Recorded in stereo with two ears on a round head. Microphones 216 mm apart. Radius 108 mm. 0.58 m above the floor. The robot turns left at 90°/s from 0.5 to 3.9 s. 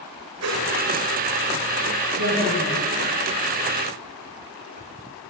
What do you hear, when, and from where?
0.4 s a whoosh: 75° right (ahead or behind), 2.0 m; by 0.7 s 70° right (ahead or behind), 2.0 m
2.2 s a woman speaking: 115° right, 3.5 m; by 2.8 s 175° right, 3.5 m